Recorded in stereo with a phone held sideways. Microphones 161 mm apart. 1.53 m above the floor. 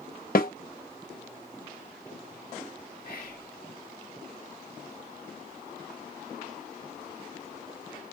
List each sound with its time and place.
0.3 s a snare drum: 65° left (ahead or behind), 0.7 m
3.0 s whispering: 60° left (ahead or behind), 1.1 m